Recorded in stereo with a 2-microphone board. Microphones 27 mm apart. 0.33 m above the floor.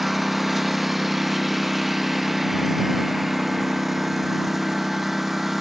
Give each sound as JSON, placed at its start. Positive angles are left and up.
{"t": 0.0, "sound": "a lawn mower", "side_deg": -10}